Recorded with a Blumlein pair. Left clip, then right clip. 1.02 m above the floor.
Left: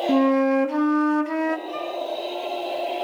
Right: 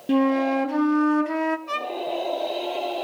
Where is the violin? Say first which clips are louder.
Right 1 dB; 55° right, 0.9 m.